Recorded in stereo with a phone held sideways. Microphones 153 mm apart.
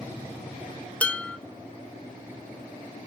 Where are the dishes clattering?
10° left (ahead or behind), 0.7 m.